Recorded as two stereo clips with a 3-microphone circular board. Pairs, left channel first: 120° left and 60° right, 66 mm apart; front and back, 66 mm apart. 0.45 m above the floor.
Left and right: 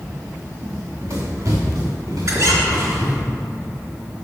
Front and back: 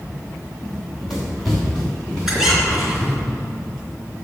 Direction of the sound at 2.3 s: 95° right.